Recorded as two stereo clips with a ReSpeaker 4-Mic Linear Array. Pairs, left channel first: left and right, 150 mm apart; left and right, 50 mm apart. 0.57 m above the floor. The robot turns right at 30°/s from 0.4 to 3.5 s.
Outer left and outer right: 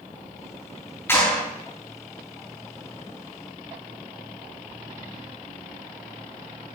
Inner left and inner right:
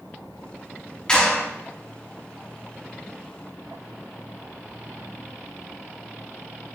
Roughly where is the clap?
Centre.